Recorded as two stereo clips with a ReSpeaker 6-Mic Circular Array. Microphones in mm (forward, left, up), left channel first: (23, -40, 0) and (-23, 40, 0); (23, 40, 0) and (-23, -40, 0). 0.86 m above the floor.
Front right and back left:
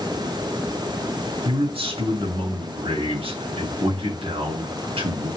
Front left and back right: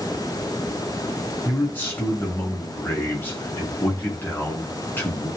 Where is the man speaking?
130° left, 8 m.